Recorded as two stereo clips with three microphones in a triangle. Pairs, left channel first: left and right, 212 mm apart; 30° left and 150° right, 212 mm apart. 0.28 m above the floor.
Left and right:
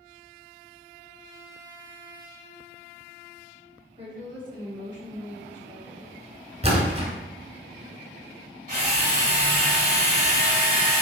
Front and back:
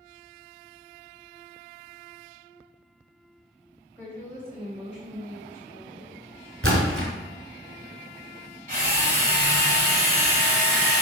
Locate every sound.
4.0 s a woman speaking: 45° right, 1.7 m; by 6.3 s 5° left, 2.5 m
6.6 s a splash: 150° right, 1.0 m
8.7 s a drill: 120° right, 1.4 m